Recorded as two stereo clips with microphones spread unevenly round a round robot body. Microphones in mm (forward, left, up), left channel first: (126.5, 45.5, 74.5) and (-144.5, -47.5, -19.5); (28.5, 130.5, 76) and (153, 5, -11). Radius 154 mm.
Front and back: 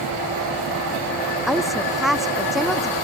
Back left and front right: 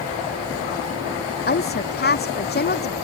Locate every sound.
1.5 s a woman speaking: 110° left